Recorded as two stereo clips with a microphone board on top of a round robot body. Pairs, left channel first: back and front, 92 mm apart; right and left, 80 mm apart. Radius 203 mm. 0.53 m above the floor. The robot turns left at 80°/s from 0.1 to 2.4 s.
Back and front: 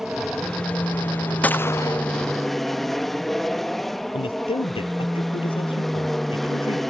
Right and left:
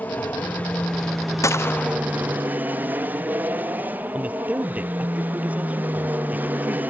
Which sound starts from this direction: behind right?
A gunshot, at 1.4 s.